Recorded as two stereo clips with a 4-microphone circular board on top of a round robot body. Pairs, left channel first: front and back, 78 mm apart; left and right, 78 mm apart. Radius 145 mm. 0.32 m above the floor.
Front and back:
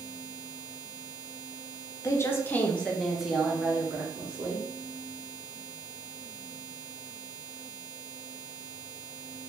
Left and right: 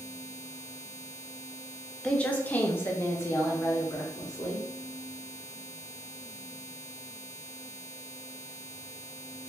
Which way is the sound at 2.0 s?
20° left.